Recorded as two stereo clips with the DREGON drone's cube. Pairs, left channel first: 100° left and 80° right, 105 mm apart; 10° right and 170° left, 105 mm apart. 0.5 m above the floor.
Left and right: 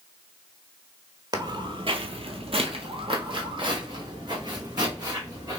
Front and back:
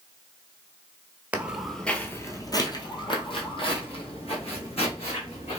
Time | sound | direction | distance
1.3 | footsteps | 120° right | 0.7 m